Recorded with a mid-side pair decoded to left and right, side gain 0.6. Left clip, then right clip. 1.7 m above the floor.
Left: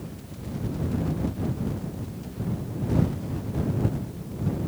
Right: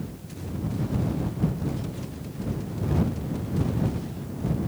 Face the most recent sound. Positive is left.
No sound to turn to.